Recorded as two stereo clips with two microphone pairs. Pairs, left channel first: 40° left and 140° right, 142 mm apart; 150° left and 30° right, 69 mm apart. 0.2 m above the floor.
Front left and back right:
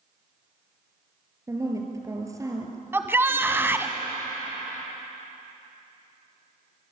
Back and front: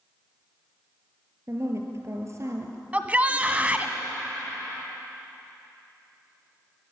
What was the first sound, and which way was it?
A woman speaking, 70° right.